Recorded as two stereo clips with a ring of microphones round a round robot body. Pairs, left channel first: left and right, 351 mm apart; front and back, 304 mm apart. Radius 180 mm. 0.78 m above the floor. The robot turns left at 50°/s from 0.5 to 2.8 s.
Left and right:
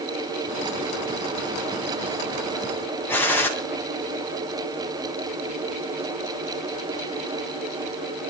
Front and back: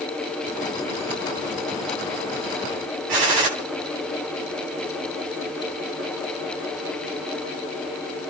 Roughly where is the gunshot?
Behind.